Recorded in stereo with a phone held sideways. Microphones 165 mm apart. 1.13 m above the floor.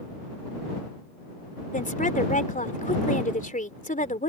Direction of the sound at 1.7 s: 55° left (ahead or behind).